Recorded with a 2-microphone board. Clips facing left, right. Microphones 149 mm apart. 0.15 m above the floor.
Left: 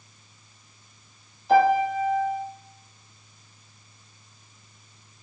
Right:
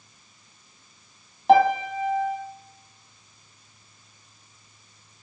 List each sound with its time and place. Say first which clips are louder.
1.5 s a piano: right 1 dB; 80° right, 1.8 m